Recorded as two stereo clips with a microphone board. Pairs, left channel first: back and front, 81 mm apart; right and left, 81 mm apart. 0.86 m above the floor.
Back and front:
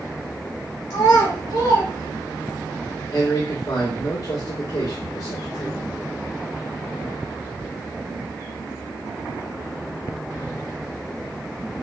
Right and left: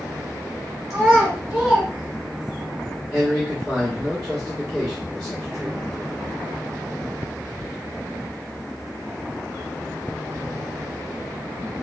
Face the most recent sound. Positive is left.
turn(degrees=180)